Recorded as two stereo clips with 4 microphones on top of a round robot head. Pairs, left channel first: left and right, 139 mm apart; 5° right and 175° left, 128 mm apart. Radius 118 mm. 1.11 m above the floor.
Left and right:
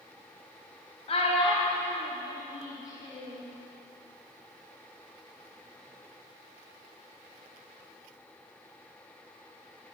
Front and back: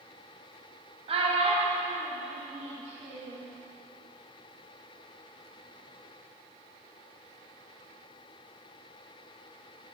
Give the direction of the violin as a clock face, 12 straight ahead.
No violin in this recording.